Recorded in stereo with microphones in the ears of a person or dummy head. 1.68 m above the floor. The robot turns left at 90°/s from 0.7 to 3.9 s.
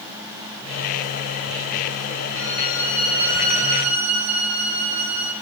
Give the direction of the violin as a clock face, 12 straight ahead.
10 o'clock.